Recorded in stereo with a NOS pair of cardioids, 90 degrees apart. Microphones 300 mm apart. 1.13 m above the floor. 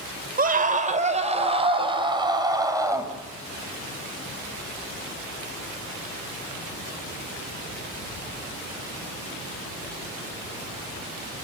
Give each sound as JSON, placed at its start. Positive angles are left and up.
{"t": 0.4, "sound": "a scream", "azimuth_deg": -30, "distance_m": 5.0}